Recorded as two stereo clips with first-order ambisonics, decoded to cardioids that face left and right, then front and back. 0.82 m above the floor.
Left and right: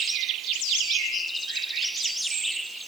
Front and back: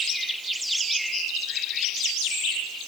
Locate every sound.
Only background noise.